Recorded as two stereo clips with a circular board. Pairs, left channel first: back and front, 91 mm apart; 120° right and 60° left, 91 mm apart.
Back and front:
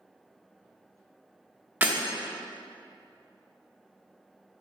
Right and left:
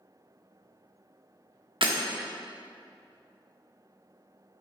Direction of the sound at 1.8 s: 70° left.